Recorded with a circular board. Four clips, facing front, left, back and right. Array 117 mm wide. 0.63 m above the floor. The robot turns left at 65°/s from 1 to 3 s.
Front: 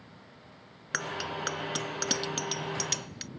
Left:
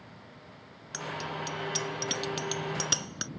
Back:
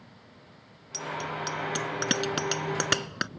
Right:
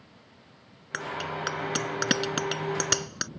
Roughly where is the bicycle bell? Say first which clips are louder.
Right 3 dB, back 1 dB; ahead right.